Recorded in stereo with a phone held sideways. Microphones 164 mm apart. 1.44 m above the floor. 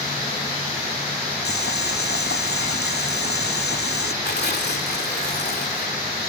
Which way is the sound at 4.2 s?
75° left (ahead or behind).